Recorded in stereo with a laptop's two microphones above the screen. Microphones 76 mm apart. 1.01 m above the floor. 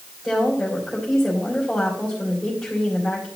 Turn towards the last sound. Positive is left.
turn(degrees=5)  # may be behind; listen again after turning